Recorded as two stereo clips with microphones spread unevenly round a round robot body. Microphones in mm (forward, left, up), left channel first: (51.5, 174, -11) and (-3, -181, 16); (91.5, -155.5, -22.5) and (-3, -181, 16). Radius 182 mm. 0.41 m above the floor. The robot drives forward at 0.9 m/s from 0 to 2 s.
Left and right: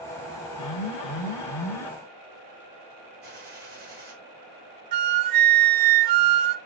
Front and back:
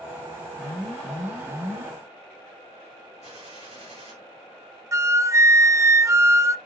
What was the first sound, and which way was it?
An alarm, 55° left.